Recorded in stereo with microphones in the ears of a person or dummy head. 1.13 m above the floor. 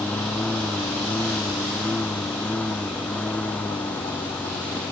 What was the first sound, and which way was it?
A lawn mower, 5° left (ahead or behind).